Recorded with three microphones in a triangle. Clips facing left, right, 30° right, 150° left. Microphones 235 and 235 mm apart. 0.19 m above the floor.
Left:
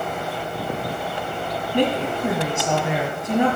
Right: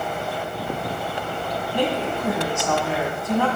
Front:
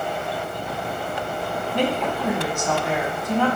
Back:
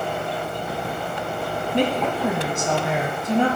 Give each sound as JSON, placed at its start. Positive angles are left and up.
{"t": 1.7, "sound": "a woman speaking", "azimuth_deg": 125, "distance_m": 1.7}